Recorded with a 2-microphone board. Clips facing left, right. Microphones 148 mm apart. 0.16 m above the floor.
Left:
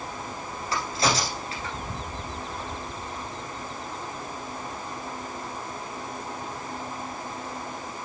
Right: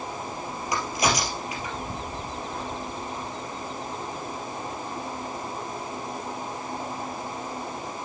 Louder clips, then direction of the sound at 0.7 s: Even; 15° right (ahead or behind).